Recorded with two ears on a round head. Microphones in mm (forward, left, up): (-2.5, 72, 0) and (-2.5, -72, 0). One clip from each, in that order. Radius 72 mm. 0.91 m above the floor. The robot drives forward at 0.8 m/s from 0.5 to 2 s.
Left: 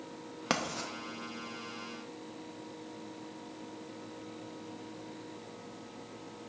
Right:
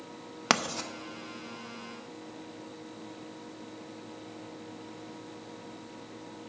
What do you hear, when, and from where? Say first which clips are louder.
0.5 s writing: right 6 dB; 35° right (ahead or behind), 0.5 m; by 0.9 s 25° right (ahead or behind), 0.8 m